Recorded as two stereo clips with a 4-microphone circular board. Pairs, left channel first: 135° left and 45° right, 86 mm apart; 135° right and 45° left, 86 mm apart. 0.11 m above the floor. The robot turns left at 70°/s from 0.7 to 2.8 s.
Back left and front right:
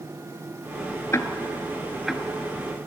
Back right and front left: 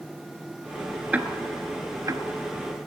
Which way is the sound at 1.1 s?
105° left.